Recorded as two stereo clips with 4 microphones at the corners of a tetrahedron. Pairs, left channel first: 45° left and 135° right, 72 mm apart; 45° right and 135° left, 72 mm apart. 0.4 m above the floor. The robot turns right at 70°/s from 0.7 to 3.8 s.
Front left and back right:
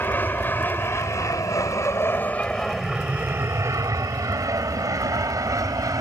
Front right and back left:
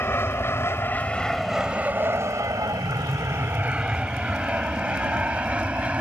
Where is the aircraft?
5° right; by 6.0 s 155° right.